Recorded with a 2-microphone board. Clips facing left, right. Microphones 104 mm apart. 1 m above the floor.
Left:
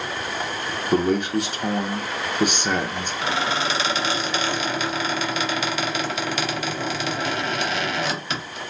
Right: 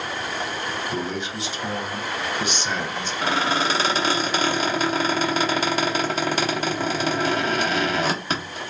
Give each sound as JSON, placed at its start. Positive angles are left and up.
{"t": 0.9, "sound": "a man speaking", "side_deg": 50, "distance_m": 0.5}
{"t": 3.2, "sound": "a squeak", "side_deg": -40, "distance_m": 0.8}